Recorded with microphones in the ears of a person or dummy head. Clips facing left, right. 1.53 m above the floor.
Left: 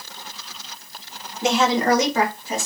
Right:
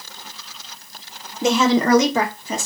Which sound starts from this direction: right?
A woman speaking, at 1.4 s.